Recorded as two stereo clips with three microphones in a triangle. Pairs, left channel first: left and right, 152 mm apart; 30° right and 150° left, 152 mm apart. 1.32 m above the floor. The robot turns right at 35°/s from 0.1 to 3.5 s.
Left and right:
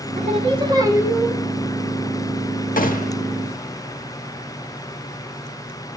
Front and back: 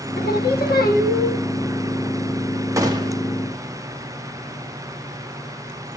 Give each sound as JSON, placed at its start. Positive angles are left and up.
{"t": 0.2, "sound": "singing", "azimuth_deg": -45, "distance_m": 1.6}
{"t": 2.8, "sound": "a gunshot", "azimuth_deg": 85, "distance_m": 1.2}